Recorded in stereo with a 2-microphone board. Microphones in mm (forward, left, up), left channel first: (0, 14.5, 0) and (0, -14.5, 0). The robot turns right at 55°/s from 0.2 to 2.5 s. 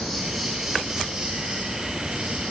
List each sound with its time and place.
0.0 s an insect: 165° left, 3 m; by 2.5 s 70° right, 3 m